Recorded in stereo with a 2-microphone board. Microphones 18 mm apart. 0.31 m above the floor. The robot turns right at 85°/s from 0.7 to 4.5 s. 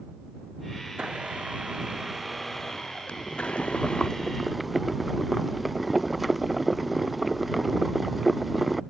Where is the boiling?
65° left; by 8.8 s 175° right.